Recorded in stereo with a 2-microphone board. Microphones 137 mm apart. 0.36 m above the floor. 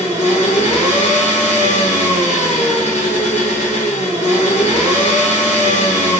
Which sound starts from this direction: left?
An engine running, at 0.0 s.